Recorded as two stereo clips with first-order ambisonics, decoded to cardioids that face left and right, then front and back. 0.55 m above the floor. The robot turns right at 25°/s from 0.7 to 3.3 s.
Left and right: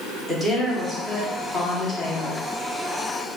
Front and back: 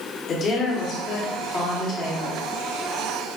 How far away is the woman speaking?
About 1.2 m.